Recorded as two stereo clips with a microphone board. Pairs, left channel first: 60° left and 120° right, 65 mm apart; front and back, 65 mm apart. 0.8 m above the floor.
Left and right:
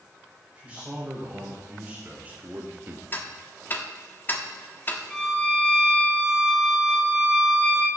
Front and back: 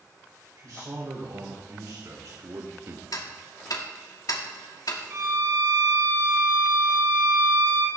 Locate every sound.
0.6 s a man speaking: 170° left, 3.5 m; by 3.0 s 160° right, 1.0 m
3.1 s ticking: 5° left, 1.4 m
5.1 s a violin: 140° left, 4 m